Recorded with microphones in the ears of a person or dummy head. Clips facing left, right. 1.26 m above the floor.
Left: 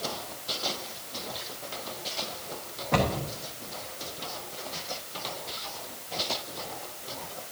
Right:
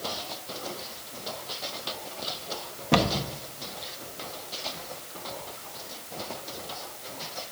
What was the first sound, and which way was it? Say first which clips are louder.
A cupboard door: right 2 dB; 50° right (ahead or behind).